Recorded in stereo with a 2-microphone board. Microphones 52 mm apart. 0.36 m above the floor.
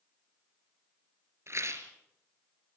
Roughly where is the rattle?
Right.